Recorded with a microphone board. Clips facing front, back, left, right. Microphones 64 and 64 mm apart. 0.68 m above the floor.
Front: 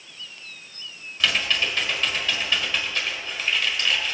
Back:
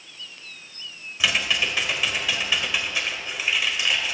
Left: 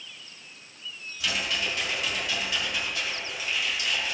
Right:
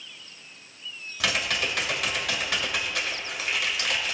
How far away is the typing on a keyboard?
About 1.5 m.